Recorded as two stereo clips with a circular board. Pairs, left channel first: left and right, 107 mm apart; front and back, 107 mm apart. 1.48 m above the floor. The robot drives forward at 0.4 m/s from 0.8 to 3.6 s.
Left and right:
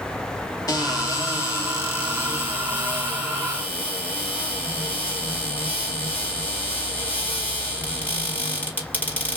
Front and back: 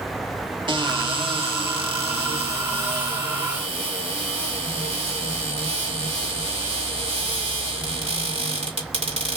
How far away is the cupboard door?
About 1.0 m.